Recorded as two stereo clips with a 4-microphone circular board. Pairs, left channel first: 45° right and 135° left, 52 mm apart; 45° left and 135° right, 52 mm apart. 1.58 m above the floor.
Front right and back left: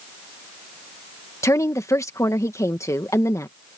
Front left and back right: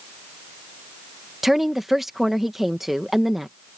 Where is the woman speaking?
50° right.